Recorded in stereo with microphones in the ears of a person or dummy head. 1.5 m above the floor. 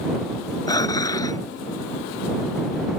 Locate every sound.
0.7 s dishes clattering: 20° left (ahead or behind)